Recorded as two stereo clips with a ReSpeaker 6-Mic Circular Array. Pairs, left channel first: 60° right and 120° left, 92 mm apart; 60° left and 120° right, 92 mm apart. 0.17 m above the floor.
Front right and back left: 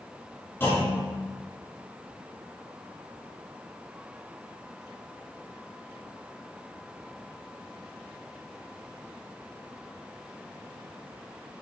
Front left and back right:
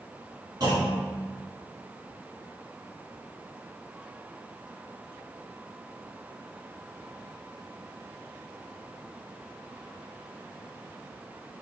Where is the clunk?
115° right, 1.9 m.